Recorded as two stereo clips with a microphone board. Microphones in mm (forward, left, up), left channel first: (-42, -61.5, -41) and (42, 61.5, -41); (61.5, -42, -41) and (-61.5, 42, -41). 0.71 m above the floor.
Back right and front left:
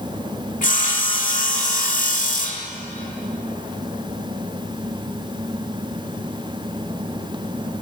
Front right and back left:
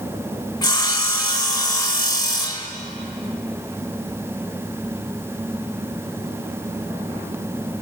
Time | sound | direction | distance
0.6 | sawing | 95° right | 1.3 m